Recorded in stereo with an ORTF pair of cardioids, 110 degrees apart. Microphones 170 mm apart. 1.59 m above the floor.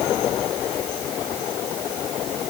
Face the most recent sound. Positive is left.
No sound to turn to.